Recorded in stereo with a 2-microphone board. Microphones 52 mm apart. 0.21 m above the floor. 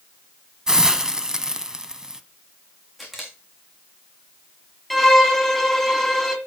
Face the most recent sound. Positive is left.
turn(degrees=0)  # may be behind; listen again after turning